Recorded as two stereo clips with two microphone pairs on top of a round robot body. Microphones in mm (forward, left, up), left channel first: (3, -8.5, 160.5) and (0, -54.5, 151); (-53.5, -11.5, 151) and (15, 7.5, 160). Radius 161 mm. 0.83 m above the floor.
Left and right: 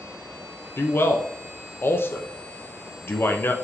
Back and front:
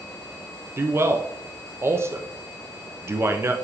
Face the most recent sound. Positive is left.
turn(degrees=60)